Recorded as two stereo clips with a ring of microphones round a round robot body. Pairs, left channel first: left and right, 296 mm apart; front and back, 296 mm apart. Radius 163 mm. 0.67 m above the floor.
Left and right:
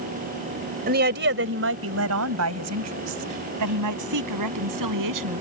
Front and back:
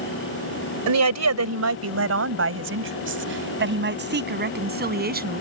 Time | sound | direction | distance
0.9 | a woman speaking | 155° right | ?